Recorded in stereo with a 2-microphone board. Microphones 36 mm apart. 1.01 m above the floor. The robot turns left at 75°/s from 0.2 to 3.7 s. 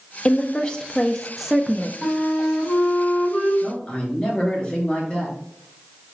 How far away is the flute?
About 2 m.